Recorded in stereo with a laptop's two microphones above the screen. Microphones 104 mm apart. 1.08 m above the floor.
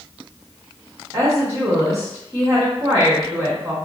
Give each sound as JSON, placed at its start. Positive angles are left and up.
{"t": 1.1, "sound": "a woman speaking", "side_deg": -35, "distance_m": 0.8}